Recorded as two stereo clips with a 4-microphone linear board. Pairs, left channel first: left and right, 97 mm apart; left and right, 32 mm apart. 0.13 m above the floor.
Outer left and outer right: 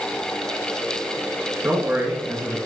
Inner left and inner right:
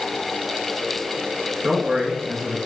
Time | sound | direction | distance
1.6 | a man speaking | 20° right (ahead or behind) | 1.8 m